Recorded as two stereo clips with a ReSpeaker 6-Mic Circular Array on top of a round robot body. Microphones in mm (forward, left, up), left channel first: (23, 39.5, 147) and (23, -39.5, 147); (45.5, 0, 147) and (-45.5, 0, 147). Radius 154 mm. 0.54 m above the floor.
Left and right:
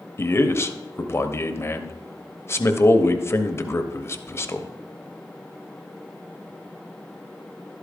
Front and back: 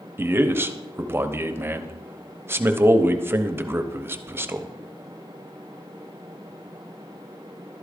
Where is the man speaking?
125° left, 1.0 m.